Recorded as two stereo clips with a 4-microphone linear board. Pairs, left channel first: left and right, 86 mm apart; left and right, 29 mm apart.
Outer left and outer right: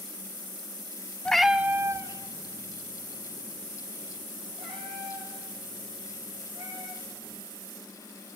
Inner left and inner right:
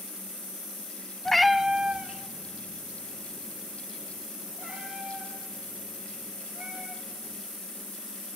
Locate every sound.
1.2 s a cat meowing: 15° left (ahead or behind), 0.6 m; by 7.4 s 70° right (ahead or behind), 6.5 m